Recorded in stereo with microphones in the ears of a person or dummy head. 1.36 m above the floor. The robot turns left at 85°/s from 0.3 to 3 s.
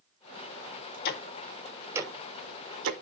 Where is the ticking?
55° left (ahead or behind), 0.8 m; by 2.9 s 65° right (ahead or behind), 0.8 m.